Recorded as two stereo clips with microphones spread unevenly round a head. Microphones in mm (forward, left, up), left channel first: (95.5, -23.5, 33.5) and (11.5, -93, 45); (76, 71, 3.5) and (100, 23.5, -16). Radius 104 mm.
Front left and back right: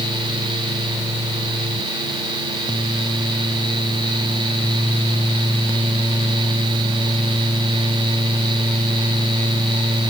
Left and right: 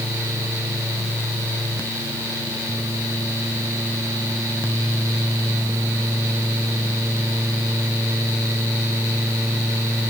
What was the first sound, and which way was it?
Only background noise.